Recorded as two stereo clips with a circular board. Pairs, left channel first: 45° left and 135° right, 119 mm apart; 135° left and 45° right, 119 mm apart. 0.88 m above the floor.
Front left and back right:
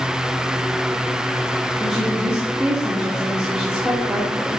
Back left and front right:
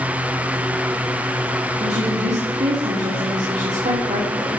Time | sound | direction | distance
1.8 | a woman speaking | 50° right | 3 m